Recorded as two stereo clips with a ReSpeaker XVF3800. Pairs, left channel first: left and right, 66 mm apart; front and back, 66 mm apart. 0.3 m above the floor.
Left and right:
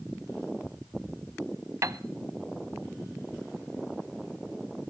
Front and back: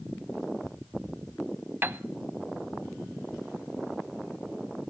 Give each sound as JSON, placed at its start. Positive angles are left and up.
{"t": 1.8, "sound": "a piano", "azimuth_deg": -125, "distance_m": 0.6}